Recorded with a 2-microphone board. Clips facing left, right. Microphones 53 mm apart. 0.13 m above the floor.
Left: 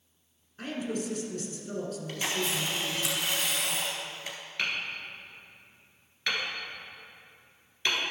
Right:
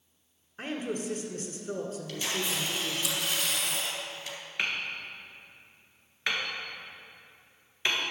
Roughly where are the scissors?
No scissors in this recording.